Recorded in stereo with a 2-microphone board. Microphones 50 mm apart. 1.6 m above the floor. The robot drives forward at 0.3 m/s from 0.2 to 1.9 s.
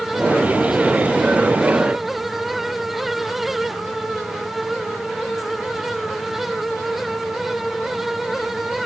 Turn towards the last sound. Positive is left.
No sound to turn to.